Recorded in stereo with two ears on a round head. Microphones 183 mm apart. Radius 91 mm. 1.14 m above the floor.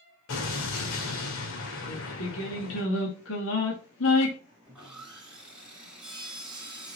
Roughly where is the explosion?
Left.